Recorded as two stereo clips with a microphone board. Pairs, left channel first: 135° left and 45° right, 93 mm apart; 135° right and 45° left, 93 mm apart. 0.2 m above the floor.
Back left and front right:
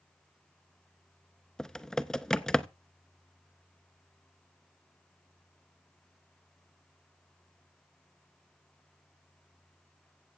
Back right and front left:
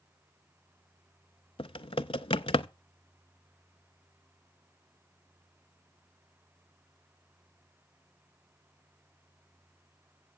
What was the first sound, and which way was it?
Typing on a keyboard, 140° right.